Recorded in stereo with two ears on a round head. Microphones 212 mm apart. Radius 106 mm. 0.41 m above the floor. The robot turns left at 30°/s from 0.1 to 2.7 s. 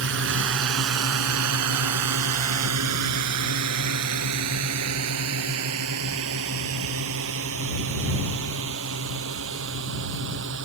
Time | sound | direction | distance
0.0 | a drone | 55° right (ahead or behind) | ?